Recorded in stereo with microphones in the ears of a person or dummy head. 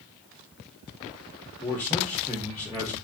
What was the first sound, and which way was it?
A man speaking, 5° left (ahead or behind).